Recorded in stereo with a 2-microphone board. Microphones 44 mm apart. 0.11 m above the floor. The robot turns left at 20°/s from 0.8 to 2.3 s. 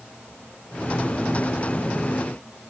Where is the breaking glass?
I don't hear breaking glass.